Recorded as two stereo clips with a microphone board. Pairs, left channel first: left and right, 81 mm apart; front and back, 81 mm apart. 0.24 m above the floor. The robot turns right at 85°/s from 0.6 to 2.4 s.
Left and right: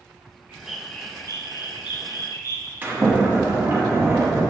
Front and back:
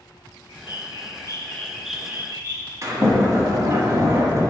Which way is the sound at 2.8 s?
145° right.